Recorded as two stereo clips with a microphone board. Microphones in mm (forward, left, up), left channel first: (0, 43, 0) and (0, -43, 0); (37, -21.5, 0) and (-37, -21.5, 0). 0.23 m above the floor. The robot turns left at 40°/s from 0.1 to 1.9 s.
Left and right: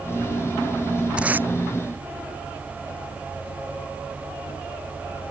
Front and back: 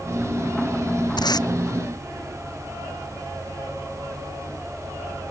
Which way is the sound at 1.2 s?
15° right.